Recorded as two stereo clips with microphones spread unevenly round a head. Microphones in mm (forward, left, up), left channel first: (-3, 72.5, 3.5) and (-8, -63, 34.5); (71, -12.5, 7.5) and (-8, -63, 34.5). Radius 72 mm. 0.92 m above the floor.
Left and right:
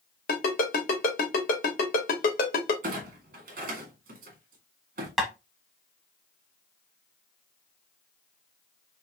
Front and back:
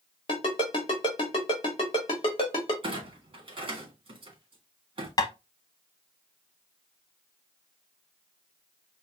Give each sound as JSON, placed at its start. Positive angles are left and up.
{"t": 0.3, "sound": "a ringtone", "azimuth_deg": 80, "distance_m": 1.5}
{"t": 2.8, "sound": "a clunk", "azimuth_deg": -115, "distance_m": 1.6}
{"t": 5.2, "sound": "tapping", "azimuth_deg": 0, "distance_m": 1.1}